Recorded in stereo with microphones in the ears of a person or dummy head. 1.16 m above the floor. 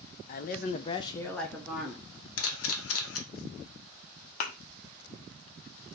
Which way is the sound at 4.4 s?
50° left (ahead or behind).